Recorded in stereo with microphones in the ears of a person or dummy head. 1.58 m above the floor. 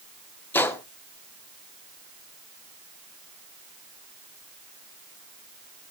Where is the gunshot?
10° left (ahead or behind), 1.0 m.